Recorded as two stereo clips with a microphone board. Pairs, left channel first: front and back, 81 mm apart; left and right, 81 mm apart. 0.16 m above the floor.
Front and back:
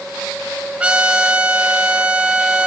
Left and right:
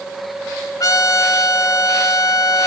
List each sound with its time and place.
0.8 s a trumpet: 110° left, 1.1 m